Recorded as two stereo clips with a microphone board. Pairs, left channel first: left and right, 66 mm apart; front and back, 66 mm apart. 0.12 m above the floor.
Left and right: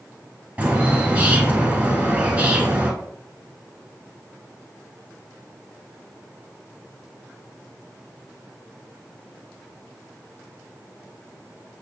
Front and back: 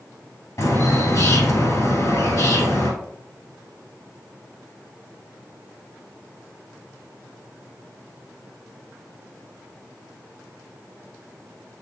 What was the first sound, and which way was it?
A bird, 30° right.